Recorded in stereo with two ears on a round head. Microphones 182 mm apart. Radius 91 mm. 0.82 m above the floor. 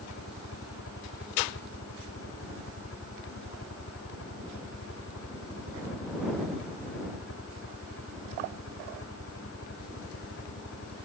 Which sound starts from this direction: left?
A helicopter, at 0.0 s.